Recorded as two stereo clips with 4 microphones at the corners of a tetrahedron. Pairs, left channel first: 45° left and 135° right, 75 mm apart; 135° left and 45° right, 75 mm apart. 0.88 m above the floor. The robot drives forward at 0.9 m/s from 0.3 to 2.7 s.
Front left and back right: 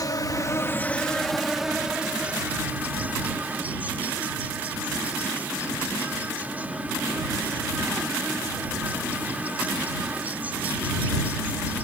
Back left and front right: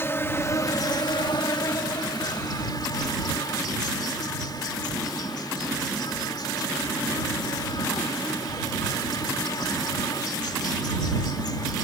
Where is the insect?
80° left; by 11.8 s 155° left.